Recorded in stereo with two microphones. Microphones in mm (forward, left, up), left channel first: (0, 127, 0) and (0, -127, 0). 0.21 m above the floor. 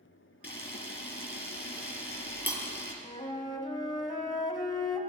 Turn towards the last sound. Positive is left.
turn(degrees=20)  # may be behind; listen again after turning